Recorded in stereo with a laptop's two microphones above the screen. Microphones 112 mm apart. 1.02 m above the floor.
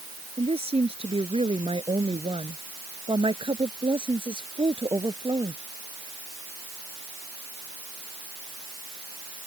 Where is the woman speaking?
65° right (ahead or behind); by 5.6 s 45° right (ahead or behind).